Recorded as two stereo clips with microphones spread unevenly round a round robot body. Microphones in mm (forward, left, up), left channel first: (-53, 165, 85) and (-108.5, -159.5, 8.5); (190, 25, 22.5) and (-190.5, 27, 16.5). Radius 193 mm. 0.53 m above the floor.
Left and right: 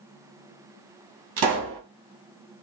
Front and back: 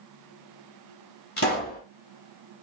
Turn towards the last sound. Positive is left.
turn(degrees=-65)